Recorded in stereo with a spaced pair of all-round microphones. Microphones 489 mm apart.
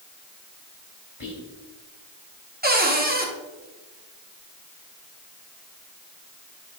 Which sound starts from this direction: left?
Whispering, at 1.2 s.